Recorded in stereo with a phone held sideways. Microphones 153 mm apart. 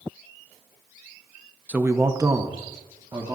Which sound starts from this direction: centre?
A man speaking, at 1.7 s.